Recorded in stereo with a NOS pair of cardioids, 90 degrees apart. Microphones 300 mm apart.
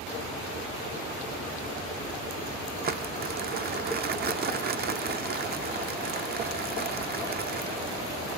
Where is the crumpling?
30° right, 0.6 m.